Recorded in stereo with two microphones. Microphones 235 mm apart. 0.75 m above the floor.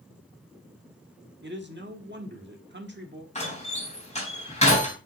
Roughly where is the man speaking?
Right.